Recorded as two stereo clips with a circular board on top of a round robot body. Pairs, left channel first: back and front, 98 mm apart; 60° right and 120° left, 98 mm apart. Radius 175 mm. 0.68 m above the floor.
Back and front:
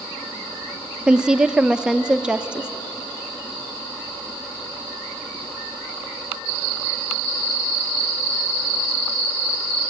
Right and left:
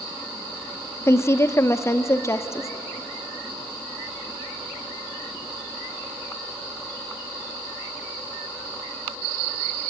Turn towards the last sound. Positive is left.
turn(degrees=-70)